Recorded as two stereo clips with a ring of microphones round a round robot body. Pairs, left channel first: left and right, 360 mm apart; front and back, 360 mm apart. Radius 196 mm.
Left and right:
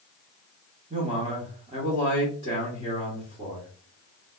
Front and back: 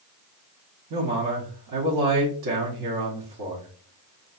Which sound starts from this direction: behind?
A man speaking, at 0.9 s.